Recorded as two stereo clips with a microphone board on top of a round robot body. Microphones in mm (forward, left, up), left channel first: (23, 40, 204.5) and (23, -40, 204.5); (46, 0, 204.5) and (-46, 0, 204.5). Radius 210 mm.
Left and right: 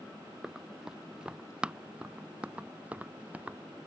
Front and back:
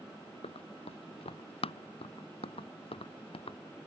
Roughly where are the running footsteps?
Ahead.